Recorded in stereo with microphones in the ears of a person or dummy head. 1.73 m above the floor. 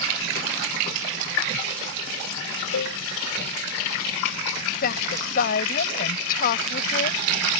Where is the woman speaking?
50° left (ahead or behind).